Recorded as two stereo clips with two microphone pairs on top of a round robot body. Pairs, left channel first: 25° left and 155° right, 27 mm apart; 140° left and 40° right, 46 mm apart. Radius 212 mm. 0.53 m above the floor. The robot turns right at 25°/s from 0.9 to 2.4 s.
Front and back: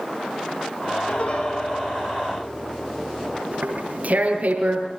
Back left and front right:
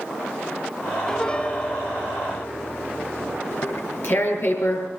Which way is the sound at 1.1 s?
70° left.